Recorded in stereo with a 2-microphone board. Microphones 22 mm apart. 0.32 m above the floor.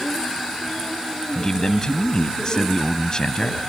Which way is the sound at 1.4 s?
40° left (ahead or behind).